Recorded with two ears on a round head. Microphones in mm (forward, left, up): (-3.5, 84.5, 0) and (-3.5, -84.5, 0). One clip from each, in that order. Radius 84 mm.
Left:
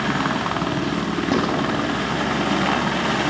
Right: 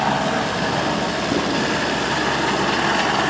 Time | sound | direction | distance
1.3 | writing | 45° left (ahead or behind) | 4 m